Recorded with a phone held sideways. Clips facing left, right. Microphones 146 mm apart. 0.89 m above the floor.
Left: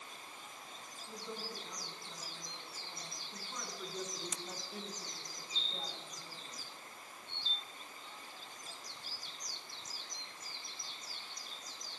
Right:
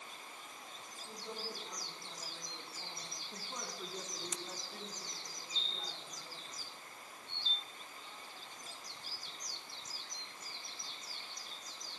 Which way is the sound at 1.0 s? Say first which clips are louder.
Even; 40° right (ahead or behind).